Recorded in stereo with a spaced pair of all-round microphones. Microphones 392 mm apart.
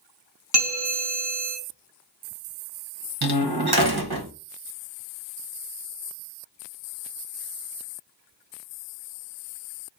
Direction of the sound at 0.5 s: 45° right (ahead or behind).